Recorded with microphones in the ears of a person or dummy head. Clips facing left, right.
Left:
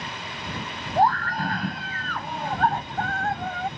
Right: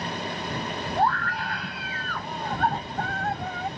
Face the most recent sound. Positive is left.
turn(degrees=60)  # may be behind; listen again after turning